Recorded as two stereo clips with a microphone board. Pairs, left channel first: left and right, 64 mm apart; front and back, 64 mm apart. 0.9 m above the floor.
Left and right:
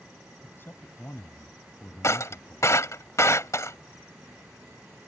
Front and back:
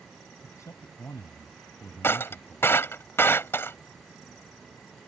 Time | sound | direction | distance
0.4 | a man speaking | 35° left | ?
2.0 | breaking glass | 50° left | ?